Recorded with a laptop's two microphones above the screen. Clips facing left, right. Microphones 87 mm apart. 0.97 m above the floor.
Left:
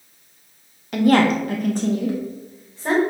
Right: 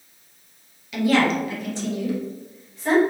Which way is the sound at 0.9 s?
50° left (ahead or behind).